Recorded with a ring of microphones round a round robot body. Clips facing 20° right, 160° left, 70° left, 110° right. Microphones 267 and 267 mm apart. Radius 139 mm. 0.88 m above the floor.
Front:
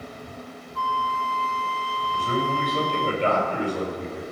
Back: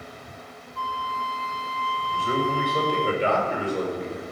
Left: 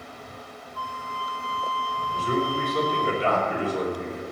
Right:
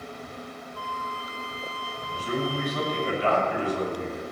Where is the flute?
50° right, 1.1 m.